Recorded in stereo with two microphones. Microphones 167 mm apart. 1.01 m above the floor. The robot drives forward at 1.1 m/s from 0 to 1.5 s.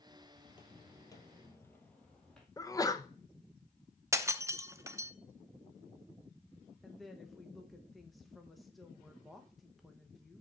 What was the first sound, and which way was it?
Footsteps, 30° left (ahead or behind).